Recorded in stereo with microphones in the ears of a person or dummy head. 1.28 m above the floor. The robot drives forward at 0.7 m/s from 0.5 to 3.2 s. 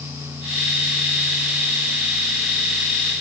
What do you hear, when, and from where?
Only background noise.